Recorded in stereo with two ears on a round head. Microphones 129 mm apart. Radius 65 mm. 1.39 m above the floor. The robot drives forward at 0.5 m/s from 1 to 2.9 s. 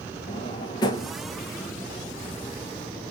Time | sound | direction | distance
0.3 | a drawer | 30° left (ahead or behind) | 0.6 m